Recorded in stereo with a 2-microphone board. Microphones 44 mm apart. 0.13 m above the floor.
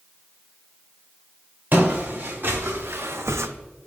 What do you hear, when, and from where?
1.7 s footsteps: 35° right (ahead or behind), 2.5 m; by 3.5 s 75° right (ahead or behind), 0.5 m